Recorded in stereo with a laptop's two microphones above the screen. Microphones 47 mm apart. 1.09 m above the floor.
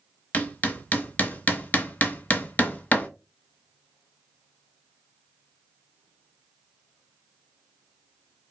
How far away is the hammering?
About 0.6 m.